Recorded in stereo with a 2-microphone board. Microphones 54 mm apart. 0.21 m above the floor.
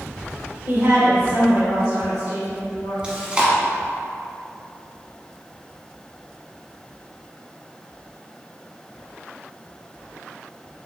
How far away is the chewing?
About 1.0 m.